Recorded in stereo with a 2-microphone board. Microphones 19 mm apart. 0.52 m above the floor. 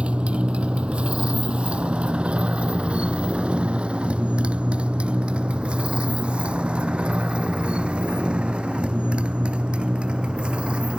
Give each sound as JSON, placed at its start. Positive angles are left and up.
{"t": 0.0, "sound": "a motorcycle", "side_deg": -85}